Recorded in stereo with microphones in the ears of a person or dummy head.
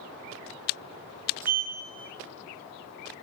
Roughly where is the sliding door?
Centre.